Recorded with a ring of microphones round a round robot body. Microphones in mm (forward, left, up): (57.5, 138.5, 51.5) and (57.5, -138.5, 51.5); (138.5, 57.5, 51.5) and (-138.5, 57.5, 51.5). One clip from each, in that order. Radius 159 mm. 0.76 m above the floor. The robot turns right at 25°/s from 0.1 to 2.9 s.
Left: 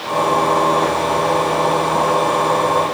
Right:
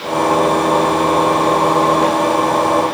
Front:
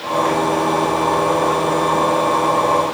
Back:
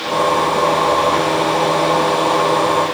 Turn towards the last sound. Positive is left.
No sound to turn to.